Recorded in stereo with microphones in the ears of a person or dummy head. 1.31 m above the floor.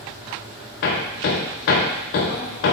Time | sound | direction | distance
0.8 | hammering | 45° left (ahead or behind) | 0.6 m